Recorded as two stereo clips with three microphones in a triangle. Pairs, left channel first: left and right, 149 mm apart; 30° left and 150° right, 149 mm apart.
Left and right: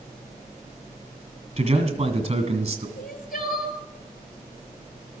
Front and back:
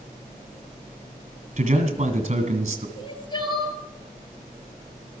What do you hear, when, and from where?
1.6 s a man speaking: 120° right, 1.9 m
3.0 s crying: 85° left, 1.6 m